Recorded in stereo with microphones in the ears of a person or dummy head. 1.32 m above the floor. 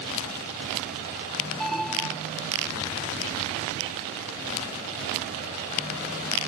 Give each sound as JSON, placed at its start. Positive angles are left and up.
{"t": 1.6, "sound": "an alarm", "side_deg": 0}